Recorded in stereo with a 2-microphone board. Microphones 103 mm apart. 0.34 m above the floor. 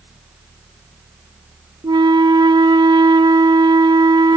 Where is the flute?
45° right (ahead or behind), 0.7 m.